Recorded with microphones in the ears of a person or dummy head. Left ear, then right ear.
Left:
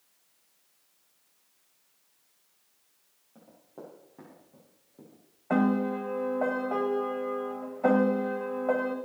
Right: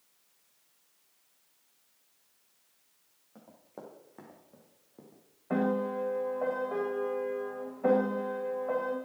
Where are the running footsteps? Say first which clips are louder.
Left 1 dB; 75° right (ahead or behind), 5.5 m; by 5.2 s 70° right (ahead or behind), 5 m.